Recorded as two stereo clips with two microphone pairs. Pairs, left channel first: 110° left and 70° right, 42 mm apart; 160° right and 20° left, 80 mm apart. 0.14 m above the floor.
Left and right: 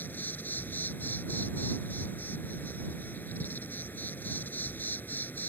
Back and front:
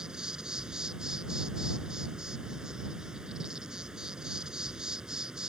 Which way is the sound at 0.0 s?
100° left.